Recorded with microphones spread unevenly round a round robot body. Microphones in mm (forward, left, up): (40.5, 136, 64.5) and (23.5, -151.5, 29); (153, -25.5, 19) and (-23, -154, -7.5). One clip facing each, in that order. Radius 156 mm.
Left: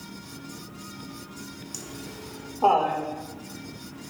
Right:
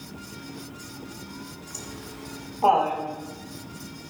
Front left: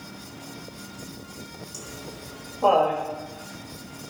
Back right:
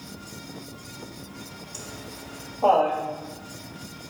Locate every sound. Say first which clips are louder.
1.7 s laughter: right 2 dB, even; 110° left, 1.3 m; by 3.0 s 115° left, 2 m